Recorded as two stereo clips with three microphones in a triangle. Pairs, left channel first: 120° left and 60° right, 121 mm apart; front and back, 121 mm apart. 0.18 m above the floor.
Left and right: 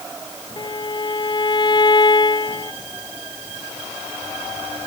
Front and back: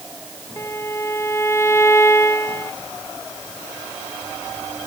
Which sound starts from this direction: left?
A violin, at 0.6 s.